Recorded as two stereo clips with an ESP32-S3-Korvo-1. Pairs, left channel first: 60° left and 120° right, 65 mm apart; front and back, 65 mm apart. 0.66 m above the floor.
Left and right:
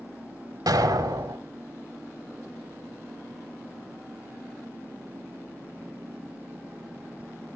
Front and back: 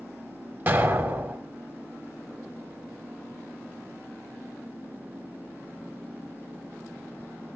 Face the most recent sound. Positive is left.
turn(degrees=-125)